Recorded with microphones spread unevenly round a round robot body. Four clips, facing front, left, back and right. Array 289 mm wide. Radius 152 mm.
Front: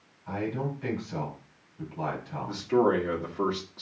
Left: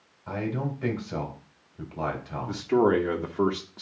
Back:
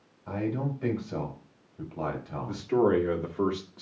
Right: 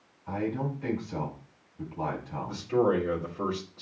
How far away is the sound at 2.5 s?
About 2 m.